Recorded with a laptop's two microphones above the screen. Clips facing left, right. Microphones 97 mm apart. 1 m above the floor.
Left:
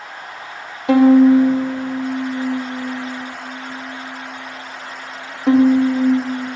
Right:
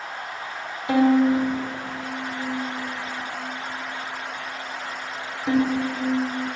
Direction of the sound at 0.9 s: 70° left (ahead or behind).